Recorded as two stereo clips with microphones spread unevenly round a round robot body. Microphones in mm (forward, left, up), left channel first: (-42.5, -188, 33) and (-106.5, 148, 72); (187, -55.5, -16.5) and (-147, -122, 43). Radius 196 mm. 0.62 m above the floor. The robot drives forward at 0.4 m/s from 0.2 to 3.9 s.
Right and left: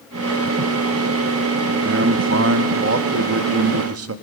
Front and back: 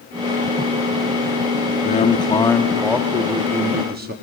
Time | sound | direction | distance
1.8 | a man speaking | 55° left | 1.1 m